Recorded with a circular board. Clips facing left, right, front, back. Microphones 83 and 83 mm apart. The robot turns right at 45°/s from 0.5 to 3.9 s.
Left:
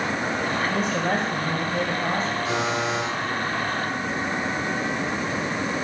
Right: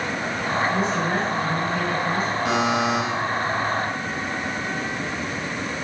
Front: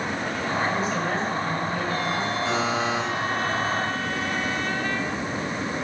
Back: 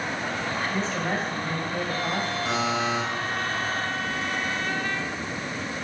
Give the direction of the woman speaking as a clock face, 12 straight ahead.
9 o'clock.